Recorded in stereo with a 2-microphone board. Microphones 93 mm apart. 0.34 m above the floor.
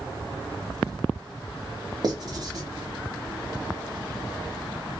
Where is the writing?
50° right (ahead or behind), 1.4 m.